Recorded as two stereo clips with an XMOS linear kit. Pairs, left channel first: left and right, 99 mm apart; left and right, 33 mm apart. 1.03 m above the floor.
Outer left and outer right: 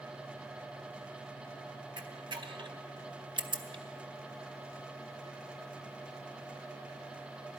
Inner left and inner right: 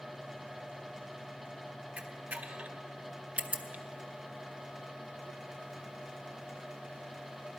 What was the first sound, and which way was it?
A camera shutter, 50° right (ahead or behind).